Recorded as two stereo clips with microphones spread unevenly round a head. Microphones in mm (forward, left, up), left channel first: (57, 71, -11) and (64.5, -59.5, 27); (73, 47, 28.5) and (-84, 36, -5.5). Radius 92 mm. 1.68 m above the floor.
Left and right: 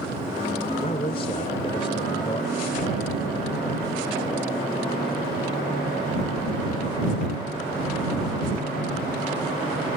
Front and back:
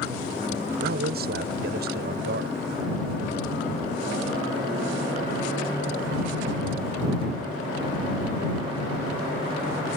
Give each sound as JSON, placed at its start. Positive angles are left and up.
{"t": 0.8, "sound": "a man speaking", "azimuth_deg": 160}